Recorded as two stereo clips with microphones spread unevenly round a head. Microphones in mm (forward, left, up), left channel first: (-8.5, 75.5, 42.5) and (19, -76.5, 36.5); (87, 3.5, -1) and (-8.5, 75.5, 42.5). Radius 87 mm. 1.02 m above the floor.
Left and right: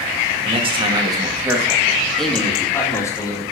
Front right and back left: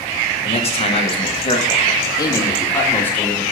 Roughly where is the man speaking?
Ahead right.